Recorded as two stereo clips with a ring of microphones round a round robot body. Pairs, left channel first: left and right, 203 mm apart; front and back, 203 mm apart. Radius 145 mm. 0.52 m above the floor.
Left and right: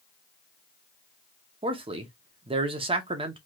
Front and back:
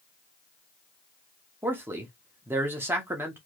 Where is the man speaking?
115° right, 0.7 m.